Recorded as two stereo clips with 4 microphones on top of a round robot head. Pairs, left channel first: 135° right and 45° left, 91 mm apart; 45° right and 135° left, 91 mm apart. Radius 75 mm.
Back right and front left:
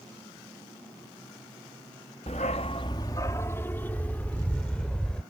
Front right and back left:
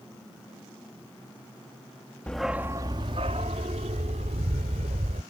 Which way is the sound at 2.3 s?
125° right.